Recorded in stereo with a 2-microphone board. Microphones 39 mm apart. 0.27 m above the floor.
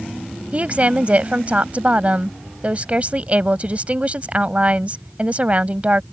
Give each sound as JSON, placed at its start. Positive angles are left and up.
{"t": 0.5, "sound": "a woman speaking", "side_deg": -35}